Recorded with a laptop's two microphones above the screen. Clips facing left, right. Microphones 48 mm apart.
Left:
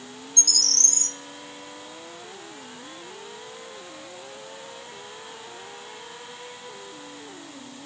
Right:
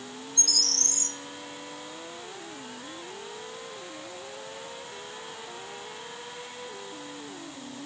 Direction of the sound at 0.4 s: 5° right (ahead or behind).